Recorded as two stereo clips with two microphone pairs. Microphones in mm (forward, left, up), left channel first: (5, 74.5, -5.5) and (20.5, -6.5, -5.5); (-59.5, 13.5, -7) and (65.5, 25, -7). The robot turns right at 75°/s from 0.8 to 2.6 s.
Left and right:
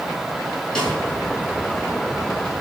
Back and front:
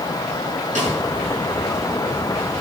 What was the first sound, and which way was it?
A snare drum, 20° left.